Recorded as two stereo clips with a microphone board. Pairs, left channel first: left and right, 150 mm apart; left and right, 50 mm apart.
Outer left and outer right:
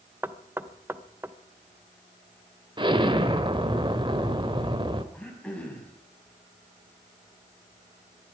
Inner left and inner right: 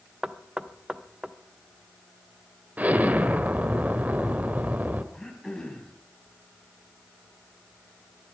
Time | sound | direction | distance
0.2 | knocking | 15° right (ahead or behind) | 0.7 m
2.8 | an explosion | 35° right (ahead or behind) | 1.1 m
5.1 | throat clearing | 10° left (ahead or behind) | 3.5 m